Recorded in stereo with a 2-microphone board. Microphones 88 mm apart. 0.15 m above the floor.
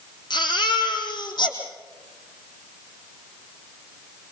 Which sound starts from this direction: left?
A baby crying, at 0.3 s.